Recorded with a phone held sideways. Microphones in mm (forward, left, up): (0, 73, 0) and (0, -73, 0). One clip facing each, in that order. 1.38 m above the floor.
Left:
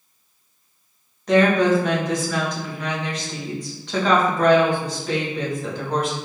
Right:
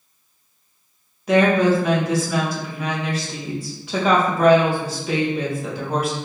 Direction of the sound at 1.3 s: 10° right (ahead or behind).